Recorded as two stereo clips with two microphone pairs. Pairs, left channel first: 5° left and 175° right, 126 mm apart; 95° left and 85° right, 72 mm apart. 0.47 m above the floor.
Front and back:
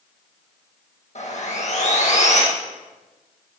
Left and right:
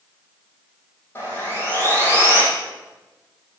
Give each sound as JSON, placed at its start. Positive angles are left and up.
{"t": 1.1, "sound": "sawing", "azimuth_deg": 35, "distance_m": 5.5}